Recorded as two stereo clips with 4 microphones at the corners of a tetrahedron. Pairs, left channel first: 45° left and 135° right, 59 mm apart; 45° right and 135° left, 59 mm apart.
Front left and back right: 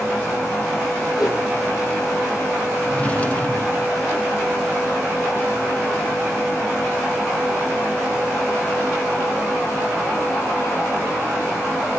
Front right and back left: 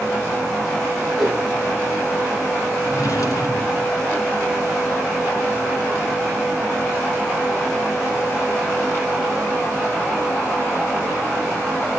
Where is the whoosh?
60° left, 7 m.